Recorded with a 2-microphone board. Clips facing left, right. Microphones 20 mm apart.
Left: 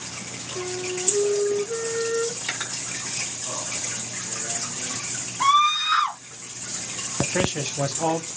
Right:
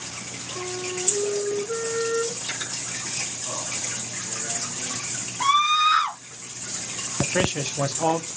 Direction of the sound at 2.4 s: 60° left (ahead or behind).